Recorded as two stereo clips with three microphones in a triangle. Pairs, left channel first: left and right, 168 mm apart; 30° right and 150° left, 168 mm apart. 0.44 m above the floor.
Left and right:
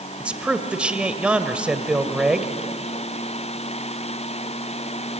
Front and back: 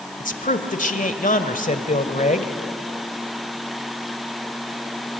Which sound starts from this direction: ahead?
A man speaking, at 0.2 s.